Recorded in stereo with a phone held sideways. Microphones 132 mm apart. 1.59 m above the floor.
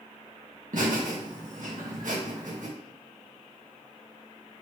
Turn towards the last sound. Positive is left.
turn(degrees=-85)